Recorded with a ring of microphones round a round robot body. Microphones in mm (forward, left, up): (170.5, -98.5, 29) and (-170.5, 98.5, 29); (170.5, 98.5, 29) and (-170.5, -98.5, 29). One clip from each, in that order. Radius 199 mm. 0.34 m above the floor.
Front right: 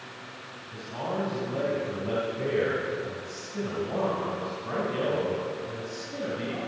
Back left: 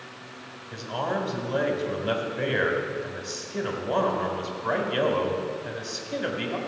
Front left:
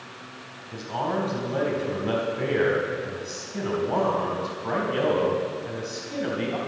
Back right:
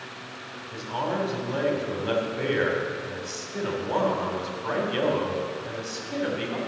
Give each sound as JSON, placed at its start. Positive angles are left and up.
{"t": 0.7, "sound": "a man speaking", "azimuth_deg": 155, "distance_m": 3.0}